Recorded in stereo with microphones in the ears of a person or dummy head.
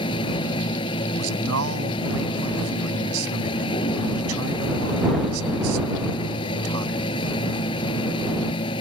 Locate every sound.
0.0 s a machine running: 30° left (ahead or behind)
1.2 s a man speaking: 80° right